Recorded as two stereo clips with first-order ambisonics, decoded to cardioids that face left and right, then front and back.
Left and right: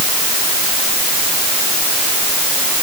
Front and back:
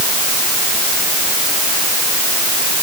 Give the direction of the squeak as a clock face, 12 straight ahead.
No squeak in this recording.